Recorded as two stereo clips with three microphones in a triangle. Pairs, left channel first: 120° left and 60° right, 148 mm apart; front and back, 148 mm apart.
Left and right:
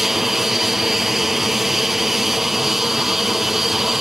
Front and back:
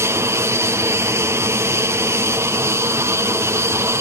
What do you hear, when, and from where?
0.0 s an aircraft: 145° right